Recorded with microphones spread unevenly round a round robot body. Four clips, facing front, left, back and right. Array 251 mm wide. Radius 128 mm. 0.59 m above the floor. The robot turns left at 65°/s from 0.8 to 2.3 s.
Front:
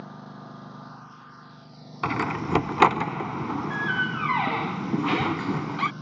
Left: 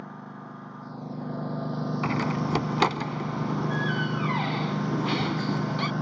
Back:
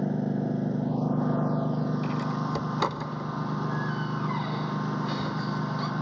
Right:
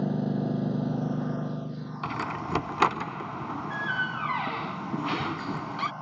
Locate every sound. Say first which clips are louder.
0.0 s a lawn mower: right 12 dB, back 13 dB; 140° right; by 6.0 s 125° left
2.0 s a door slam: left 3 dB, front 2 dB; 20° left; by 5.9 s 5° left